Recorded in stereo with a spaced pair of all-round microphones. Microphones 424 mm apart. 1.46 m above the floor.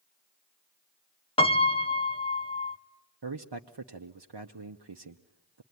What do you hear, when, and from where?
1.4 s a piano: 15° left (ahead or behind), 0.7 m
3.2 s a man speaking: 65° right (ahead or behind), 0.8 m